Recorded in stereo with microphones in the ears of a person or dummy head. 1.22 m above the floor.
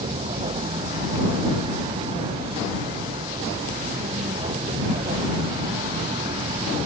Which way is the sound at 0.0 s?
30° right (ahead or behind).